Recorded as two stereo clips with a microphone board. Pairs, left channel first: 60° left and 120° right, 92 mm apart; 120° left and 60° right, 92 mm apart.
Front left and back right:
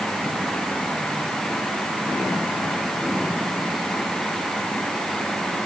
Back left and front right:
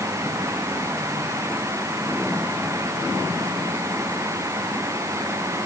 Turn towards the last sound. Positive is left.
No sound to turn to.